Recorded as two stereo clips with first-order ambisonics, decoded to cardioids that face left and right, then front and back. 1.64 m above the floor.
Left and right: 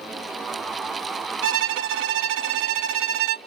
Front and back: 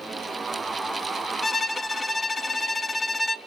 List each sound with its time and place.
1.4 s a violin: 85° right, 0.6 m